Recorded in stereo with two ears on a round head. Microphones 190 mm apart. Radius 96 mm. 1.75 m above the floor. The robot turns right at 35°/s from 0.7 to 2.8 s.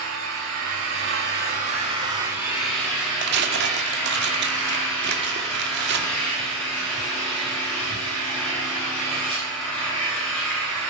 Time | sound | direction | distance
0.0 | an engine running | 70° right | 9.5 m
3.2 | tearing paper | 55° right (ahead or behind) | 2.0 m